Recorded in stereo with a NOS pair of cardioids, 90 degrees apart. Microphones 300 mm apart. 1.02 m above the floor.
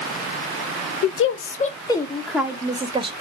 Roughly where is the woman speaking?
Ahead left.